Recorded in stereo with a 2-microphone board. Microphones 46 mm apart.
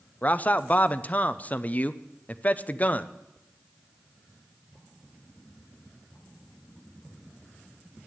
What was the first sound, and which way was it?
A man speaking, 30° left (ahead or behind).